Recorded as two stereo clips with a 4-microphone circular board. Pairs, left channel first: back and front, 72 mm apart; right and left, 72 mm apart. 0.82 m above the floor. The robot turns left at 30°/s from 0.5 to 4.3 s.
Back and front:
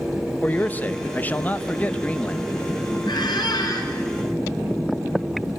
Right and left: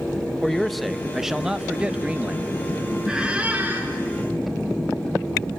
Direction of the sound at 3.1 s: 170° left.